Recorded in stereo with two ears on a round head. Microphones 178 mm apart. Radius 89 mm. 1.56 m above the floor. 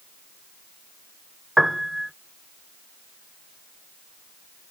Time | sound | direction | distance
1.6 | a piano | centre (ahead or behind) | ?